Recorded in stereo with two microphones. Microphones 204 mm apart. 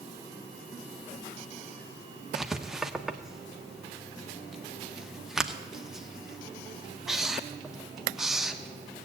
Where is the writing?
Centre (ahead or behind), 0.7 m.